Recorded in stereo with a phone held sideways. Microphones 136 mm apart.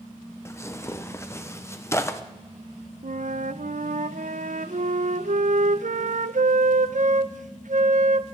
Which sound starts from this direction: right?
A flute, at 3.0 s.